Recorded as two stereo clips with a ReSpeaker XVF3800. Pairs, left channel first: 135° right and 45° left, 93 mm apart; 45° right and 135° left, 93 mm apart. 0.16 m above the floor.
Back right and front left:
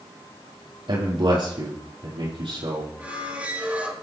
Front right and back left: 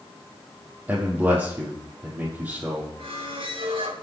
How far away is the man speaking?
About 5 m.